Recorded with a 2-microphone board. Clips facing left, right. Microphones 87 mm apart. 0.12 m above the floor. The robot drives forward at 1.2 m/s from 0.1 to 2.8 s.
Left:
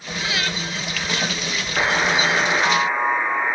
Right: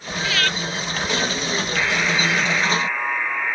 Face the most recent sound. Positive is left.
turn(degrees=25)  # may be behind; listen again after turning